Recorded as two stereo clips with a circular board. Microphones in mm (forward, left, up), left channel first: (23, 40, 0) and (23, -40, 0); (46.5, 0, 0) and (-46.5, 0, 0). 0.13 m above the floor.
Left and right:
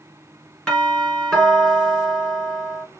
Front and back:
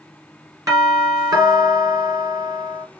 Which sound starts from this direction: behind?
A doorbell, at 0.7 s.